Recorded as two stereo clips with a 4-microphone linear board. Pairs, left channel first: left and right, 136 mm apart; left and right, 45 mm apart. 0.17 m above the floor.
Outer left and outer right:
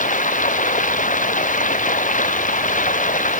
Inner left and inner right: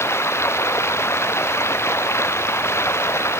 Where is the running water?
70° left (ahead or behind).